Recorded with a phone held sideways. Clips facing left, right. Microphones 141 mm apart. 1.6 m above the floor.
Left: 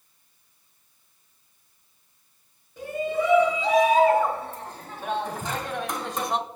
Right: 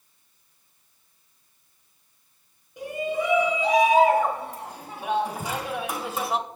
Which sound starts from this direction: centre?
A shout, at 2.8 s.